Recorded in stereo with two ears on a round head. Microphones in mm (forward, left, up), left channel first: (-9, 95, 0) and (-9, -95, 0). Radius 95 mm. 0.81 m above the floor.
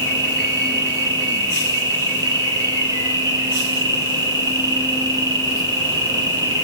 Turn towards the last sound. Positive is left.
turn(degrees=-20)  # may be behind; listen again after turning